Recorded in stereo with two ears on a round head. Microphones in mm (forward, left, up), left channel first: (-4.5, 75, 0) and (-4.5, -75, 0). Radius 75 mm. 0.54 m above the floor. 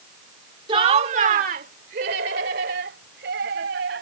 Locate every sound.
0.7 s laughter: 30° right (ahead or behind); by 4.0 s 70° right (ahead or behind)